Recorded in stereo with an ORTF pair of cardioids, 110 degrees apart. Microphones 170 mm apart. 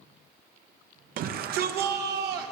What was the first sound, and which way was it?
A shout, 55° right.